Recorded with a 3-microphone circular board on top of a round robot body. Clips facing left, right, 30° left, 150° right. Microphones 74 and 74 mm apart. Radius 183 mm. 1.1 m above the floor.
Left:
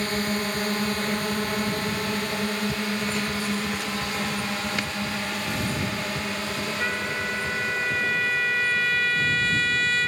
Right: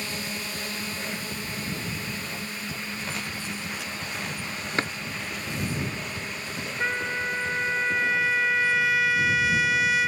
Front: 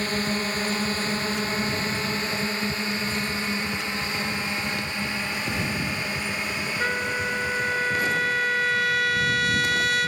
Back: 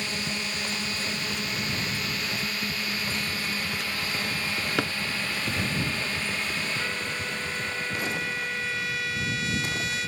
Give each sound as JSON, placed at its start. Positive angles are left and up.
{"t": 0.0, "sound": "a drone", "azimuth_deg": 70}
{"t": 4.8, "sound": "a drawer", "azimuth_deg": -150}
{"t": 6.8, "sound": "a trumpet", "azimuth_deg": -10}